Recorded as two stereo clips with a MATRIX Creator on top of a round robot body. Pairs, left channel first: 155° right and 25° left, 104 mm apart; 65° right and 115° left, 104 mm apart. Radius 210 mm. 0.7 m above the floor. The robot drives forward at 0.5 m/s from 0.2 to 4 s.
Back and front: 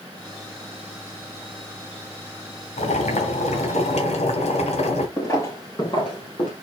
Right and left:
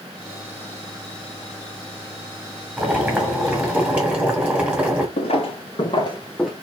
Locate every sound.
2.8 s boiling: 165° right, 1.8 m; by 5.1 s 170° right, 2.5 m
5.2 s footsteps: 95° right, 1.1 m; by 6.5 s 170° right, 0.7 m